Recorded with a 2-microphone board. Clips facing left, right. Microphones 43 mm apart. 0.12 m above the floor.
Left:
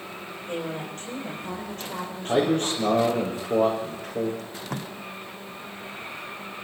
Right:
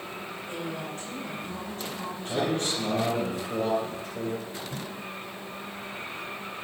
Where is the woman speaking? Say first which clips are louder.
Left 5 dB; 50° left (ahead or behind), 7 m; by 3.0 s 75° left (ahead or behind), 7 m.